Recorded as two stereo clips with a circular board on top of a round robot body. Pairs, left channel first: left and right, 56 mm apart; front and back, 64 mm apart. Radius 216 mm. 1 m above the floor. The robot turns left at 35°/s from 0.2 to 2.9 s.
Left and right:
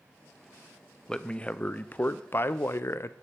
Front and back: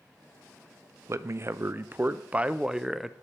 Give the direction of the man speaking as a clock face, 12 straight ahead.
7 o'clock.